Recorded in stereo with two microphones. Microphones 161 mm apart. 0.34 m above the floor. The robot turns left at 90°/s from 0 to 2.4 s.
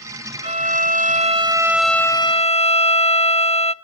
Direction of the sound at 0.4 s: 55° right.